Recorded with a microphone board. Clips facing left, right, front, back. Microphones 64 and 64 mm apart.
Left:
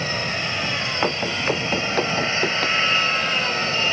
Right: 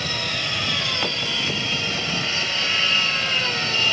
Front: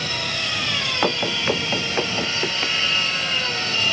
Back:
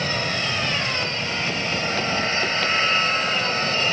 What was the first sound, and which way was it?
An aircraft, 140° left.